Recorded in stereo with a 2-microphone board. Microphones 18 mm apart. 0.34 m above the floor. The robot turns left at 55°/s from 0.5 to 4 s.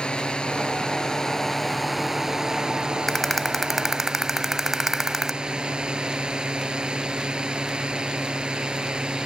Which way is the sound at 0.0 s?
70° left (ahead or behind).